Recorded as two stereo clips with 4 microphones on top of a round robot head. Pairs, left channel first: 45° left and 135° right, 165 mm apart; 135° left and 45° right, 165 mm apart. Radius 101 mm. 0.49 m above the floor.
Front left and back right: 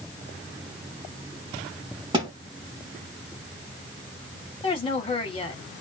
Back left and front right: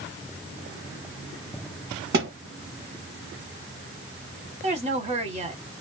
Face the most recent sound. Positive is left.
turn(degrees=-5)